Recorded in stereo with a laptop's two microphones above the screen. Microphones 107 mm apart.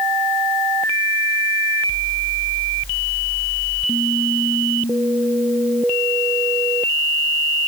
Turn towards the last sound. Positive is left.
No sound to turn to.